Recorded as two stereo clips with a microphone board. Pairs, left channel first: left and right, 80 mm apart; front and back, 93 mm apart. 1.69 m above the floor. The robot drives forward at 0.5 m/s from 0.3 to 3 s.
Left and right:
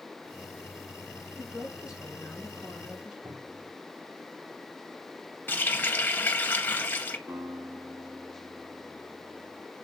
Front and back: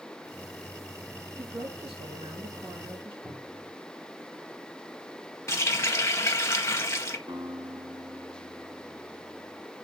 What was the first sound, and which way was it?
A woman speaking, 165° right.